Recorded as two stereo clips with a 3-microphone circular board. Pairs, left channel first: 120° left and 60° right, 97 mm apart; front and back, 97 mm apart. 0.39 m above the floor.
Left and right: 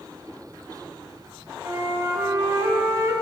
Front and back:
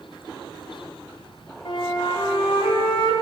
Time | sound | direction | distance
1.6 | a flute | 5° right | 1.3 m